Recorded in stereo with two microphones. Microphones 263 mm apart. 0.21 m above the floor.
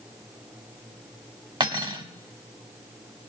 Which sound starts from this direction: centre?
Cutlery clinking, at 1.6 s.